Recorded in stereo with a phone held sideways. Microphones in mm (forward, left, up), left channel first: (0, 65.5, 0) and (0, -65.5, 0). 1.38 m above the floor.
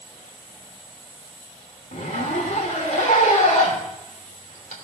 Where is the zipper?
75° left (ahead or behind), 2.5 m.